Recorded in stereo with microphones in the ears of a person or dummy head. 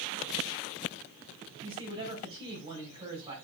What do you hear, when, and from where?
1.6 s a man speaking: 25° right (ahead or behind), 5 m